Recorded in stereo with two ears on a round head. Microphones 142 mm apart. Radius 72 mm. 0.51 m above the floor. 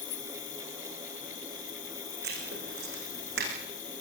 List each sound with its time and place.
0.0 s an insect: 55° left (ahead or behind), 4.5 m
2.2 s writing: 70° right (ahead or behind), 8.5 m